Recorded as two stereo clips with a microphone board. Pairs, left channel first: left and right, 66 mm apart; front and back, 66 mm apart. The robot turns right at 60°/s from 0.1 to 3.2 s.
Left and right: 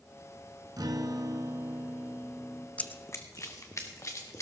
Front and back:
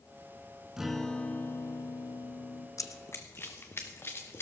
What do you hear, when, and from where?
0.8 s a guitar: 100° right, 0.8 m; by 2.7 s 15° left, 0.8 m
2.8 s running footsteps: 20° left, 0.6 m; by 4.4 s 50° left, 2 m